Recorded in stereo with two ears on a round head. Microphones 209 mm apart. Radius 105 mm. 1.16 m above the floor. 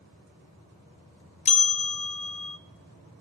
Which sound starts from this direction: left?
A bell, at 1.4 s.